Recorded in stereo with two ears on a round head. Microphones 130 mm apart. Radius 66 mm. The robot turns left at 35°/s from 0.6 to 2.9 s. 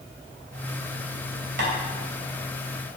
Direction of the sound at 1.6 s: 75° right (ahead or behind).